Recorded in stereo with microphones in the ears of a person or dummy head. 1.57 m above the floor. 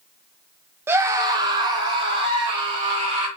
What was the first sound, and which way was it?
A scream, 15° right (ahead or behind).